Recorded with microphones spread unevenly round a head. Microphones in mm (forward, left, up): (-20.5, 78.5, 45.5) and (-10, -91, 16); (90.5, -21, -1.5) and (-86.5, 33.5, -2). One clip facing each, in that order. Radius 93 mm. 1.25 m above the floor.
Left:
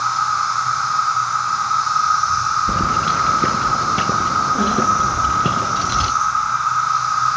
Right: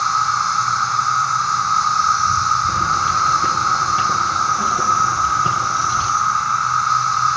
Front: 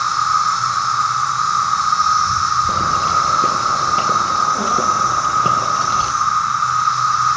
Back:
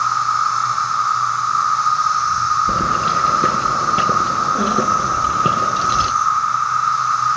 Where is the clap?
I don't hear a clap.